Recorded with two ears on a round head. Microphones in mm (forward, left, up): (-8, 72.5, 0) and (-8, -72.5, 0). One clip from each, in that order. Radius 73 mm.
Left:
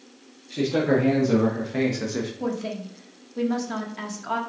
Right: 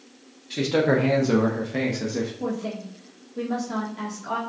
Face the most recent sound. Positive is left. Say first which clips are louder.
# left 1 dB
turn(degrees=35)  # may be behind; listen again after turning